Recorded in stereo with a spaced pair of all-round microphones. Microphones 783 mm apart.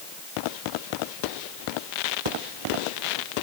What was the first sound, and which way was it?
Only background noise.